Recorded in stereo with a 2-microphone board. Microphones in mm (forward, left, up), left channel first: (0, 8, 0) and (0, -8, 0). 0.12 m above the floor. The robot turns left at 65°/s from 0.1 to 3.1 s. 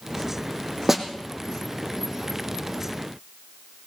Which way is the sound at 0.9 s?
20° right (ahead or behind).